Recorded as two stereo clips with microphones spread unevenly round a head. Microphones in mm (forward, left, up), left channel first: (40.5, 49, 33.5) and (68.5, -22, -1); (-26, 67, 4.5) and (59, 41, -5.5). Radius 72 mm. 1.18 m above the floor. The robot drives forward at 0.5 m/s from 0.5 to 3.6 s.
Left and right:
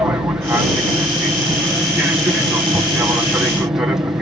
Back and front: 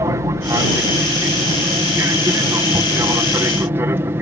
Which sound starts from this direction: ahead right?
An aircraft, at 0.0 s.